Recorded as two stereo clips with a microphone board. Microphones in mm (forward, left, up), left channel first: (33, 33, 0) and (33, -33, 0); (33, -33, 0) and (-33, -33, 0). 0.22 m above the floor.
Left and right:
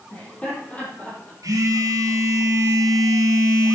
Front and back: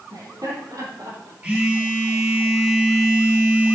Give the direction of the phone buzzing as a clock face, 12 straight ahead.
4 o'clock.